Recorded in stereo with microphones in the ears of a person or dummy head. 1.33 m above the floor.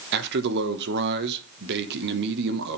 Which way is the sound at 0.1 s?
60° right (ahead or behind).